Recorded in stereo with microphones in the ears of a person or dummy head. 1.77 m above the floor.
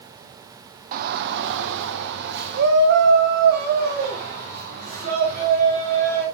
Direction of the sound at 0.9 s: 45° right (ahead or behind).